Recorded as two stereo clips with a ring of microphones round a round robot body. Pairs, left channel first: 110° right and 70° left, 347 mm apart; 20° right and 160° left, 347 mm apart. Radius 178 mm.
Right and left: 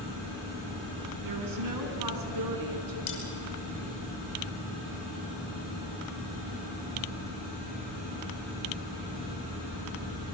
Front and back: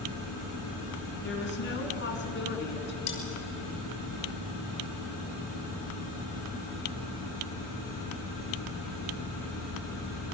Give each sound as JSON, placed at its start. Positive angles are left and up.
{"t": 1.2, "sound": "a woman speaking", "azimuth_deg": 35, "distance_m": 3.5}
{"t": 3.1, "sound": "cutlery clinking", "azimuth_deg": -70, "distance_m": 4.5}